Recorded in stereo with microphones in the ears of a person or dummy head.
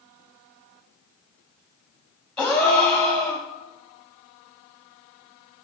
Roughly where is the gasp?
Centre.